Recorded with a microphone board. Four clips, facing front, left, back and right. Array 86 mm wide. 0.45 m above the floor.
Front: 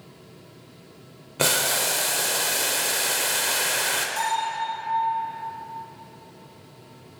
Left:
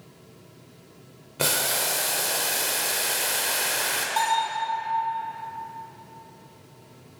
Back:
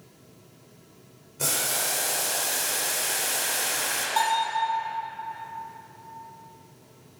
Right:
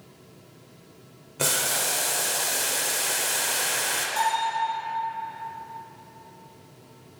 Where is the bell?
150° left, 2.5 m.